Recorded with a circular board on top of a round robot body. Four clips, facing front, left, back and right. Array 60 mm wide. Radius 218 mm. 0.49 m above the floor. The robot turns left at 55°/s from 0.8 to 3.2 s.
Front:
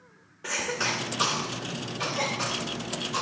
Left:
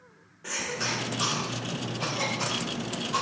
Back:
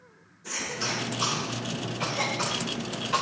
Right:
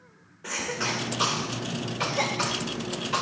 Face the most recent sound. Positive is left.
turn(degrees=-145)